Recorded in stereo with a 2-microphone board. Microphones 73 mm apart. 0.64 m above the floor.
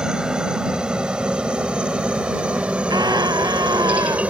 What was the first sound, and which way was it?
A helicopter, 10° right (ahead or behind).